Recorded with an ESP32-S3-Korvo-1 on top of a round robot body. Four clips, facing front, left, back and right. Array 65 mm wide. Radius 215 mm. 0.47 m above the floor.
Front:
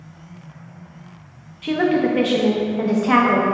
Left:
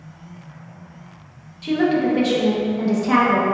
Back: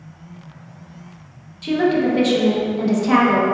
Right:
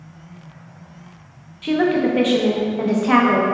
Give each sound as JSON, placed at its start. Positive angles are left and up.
{"t": 1.6, "sound": "a woman speaking", "azimuth_deg": -45, "distance_m": 0.8}